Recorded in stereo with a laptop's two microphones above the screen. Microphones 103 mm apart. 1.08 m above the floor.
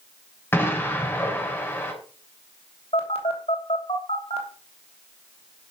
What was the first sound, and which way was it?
An explosion, 20° left (ahead or behind).